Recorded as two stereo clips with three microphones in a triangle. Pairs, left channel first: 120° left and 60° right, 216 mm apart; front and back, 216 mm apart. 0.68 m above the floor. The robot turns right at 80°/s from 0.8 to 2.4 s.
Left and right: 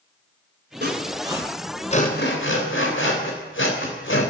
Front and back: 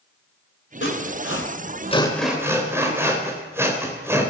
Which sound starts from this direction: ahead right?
Sawing, at 0.8 s.